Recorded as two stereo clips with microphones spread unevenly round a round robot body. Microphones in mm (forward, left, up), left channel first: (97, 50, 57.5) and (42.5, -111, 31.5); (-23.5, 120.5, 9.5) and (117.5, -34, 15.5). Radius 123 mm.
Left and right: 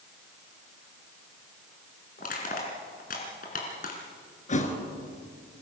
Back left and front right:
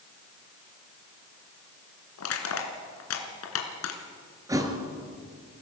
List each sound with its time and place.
2.2 s crushing: 125° left, 2.5 m
4.5 s a thud: 25° left, 2.5 m